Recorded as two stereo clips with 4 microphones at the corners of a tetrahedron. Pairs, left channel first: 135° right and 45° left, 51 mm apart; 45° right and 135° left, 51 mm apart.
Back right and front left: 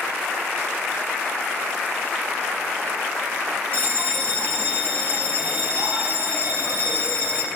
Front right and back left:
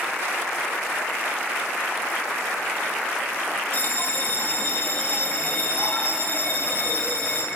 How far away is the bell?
About 1.1 m.